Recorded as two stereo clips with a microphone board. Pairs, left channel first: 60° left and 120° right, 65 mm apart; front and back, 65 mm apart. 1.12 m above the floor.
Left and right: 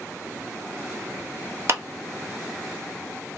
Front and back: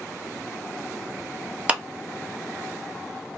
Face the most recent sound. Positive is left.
turn(degrees=-115)